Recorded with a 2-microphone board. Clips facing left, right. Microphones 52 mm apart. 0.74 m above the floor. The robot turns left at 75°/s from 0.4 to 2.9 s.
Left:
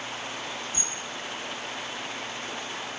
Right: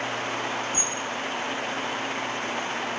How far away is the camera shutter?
About 1.6 m.